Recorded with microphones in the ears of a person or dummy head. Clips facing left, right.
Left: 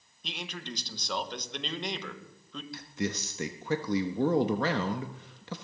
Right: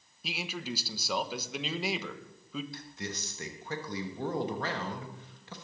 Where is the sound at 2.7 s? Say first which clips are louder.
Left 7 dB; 65° left (ahead or behind), 1.0 m.